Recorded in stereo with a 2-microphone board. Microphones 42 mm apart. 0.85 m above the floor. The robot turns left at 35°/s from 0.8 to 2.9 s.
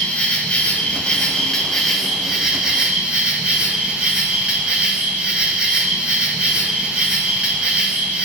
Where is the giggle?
I don't hear a giggle.